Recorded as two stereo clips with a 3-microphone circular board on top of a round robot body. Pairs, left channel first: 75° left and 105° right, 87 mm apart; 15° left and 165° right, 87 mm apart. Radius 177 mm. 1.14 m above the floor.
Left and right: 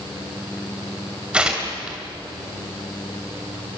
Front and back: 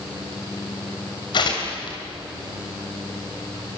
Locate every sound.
1.3 s tearing paper: 25° right, 3 m